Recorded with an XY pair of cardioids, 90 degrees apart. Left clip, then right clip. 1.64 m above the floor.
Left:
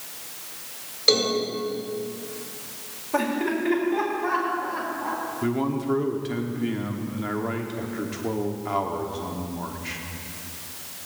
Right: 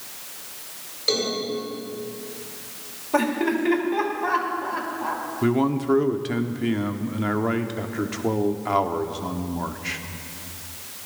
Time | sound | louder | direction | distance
1.1 | a cowbell | left 3 dB | 40° left | 5 m
3.1 | laughter | right 2 dB | 25° right | 4.5 m
5.4 | a man speaking | right 6 dB | 40° right | 1.2 m